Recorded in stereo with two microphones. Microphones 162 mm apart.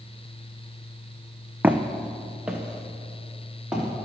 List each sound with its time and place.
1.6 s footsteps: 10° right (ahead or behind), 0.5 m; by 3.9 s 5° right (ahead or behind), 2.5 m